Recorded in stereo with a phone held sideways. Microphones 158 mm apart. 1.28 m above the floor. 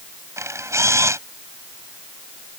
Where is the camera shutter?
20° right (ahead or behind).